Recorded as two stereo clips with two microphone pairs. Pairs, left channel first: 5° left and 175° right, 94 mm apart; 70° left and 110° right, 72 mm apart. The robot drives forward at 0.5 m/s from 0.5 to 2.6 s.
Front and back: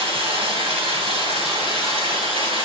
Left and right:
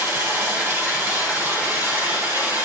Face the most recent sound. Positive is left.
turn(degrees=-175)